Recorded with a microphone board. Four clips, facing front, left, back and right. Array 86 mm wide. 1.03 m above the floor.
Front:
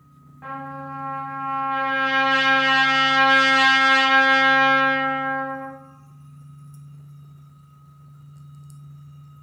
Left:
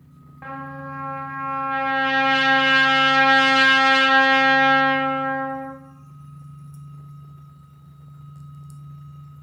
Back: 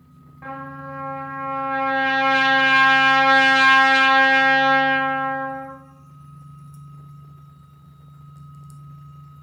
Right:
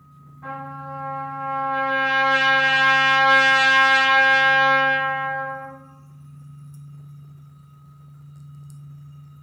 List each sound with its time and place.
0.4 s a trumpet: 95° left, 1.0 m